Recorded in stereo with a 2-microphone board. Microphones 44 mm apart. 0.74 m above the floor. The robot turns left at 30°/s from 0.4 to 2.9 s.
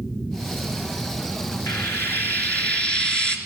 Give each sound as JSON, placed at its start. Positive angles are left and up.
{"t": 1.7, "sound": "frying", "azimuth_deg": 60, "distance_m": 2.5}